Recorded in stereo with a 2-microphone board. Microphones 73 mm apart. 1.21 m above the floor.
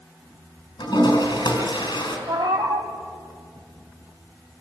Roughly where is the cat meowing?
Right.